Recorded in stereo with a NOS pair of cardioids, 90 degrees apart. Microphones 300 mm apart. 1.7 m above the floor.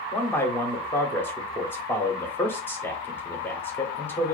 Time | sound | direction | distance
0.1 | a man speaking | 5° left | 0.9 m